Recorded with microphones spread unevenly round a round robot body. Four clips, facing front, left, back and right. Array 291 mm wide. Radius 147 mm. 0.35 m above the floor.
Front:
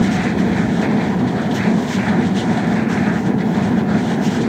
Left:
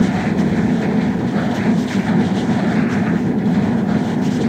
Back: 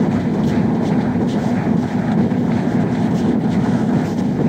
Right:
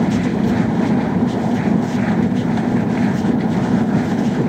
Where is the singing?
I don't hear singing.